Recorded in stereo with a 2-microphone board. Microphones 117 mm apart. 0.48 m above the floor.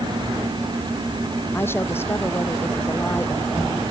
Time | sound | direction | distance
1.5 | a woman speaking | 20° left (ahead or behind) | ?